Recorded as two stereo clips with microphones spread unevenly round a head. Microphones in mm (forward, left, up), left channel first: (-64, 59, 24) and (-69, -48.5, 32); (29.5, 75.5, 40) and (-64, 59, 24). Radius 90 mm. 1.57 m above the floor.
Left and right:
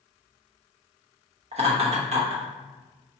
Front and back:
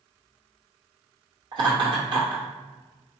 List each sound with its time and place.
1.5 s laughter: 115° right, 0.9 m